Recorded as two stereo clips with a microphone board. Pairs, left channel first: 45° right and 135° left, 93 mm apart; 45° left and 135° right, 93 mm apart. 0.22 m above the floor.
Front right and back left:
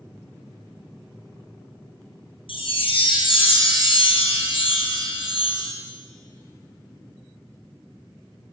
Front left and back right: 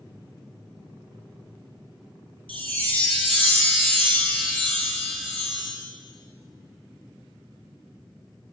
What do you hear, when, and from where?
2.5 s a chime: 25° right, 2.5 m